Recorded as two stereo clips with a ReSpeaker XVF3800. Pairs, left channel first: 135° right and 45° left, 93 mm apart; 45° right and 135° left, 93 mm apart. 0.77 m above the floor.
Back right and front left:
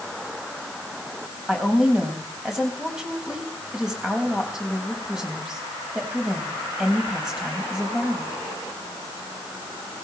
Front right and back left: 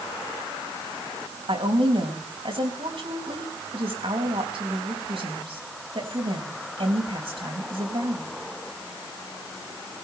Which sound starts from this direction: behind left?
A woman speaking, at 1.5 s.